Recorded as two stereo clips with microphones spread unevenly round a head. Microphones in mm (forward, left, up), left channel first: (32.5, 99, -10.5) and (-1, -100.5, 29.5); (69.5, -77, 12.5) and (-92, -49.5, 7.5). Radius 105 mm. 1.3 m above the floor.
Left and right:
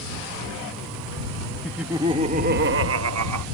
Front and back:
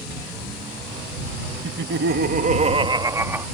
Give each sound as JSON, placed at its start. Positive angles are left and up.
{"t": 1.6, "sound": "laughter", "azimuth_deg": 175}